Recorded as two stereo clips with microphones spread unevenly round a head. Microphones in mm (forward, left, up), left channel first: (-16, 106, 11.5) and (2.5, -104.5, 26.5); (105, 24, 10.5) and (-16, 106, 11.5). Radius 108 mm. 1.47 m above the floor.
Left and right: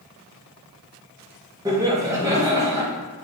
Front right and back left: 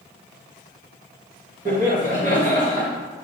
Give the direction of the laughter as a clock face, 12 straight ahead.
5 o'clock.